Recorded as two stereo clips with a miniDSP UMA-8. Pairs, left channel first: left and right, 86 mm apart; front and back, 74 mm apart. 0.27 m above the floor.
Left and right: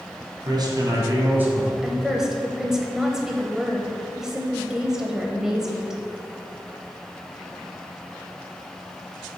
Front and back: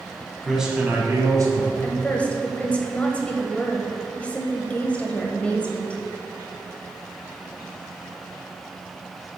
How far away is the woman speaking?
About 0.9 m.